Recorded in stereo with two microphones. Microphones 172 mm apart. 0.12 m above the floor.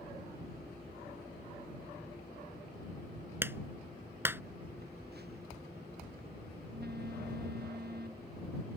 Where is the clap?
15° right (ahead or behind).